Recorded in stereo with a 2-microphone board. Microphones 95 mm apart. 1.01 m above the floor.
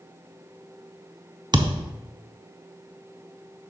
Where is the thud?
45° right (ahead or behind), 0.7 m.